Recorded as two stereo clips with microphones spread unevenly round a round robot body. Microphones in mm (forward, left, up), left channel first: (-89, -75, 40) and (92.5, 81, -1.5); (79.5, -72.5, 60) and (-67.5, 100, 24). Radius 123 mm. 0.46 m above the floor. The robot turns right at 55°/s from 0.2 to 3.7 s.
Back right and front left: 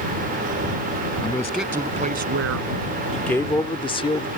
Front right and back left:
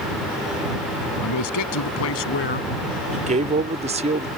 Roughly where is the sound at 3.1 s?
Behind left.